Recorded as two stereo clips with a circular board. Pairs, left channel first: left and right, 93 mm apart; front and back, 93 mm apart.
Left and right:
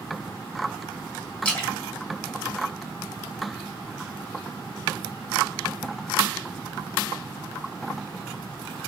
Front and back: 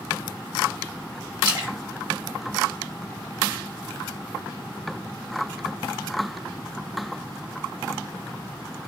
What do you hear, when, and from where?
1.4 s a splash: 165° left, 1.0 m